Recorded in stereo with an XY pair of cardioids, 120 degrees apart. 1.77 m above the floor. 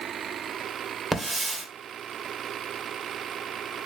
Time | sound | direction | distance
1.1 | a hiss | 10° right | 1.8 m